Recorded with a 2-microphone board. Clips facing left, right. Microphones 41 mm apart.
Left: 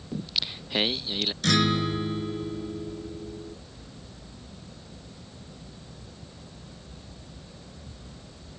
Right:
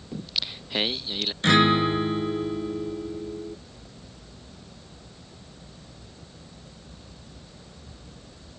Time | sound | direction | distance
0.1 | singing | centre (ahead or behind) | ?
1.4 | a guitar | 30° right (ahead or behind) | ?